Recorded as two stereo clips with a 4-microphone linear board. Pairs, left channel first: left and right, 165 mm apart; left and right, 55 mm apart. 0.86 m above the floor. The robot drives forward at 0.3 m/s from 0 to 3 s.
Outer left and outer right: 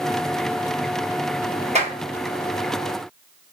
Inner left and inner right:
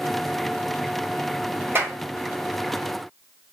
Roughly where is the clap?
Right.